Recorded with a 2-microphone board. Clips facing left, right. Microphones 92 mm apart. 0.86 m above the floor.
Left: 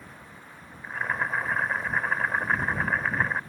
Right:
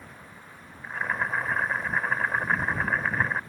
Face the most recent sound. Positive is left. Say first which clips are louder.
# even
turn(degrees=0)  # may be behind; listen again after turning